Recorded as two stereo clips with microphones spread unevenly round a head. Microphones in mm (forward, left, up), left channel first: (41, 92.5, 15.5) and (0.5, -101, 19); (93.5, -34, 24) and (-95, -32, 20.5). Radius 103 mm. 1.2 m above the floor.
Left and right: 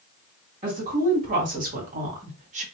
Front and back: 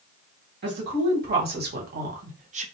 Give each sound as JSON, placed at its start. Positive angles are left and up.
{"t": 0.6, "sound": "a woman speaking", "azimuth_deg": -155, "distance_m": 1.7}